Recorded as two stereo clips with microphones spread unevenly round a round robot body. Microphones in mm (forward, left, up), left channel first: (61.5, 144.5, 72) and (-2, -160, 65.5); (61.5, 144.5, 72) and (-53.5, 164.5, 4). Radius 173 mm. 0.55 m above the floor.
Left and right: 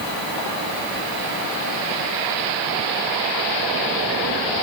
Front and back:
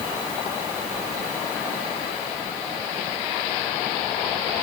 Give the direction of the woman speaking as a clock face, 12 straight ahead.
No woman speaking in this recording.